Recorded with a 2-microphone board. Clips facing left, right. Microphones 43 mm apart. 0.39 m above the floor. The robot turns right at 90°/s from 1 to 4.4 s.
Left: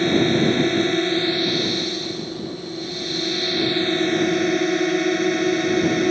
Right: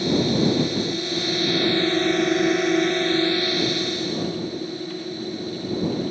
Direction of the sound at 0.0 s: 135° left.